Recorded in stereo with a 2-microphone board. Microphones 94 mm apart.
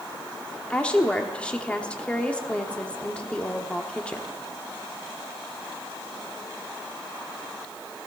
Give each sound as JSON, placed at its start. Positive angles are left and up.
{"t": 0.7, "sound": "a woman speaking", "side_deg": 15, "distance_m": 1.1}